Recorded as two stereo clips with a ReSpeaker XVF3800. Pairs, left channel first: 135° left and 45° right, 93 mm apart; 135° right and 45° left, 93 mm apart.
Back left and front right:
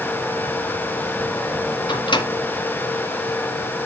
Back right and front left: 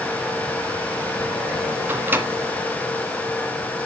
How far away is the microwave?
About 1.5 m.